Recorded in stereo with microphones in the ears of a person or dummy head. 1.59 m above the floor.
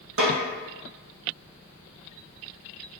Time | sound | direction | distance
0.2 | a snare drum | 75° right (ahead or behind) | 1.9 m